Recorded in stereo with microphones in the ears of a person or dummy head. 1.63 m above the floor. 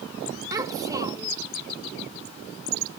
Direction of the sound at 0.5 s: 15° right (ahead or behind).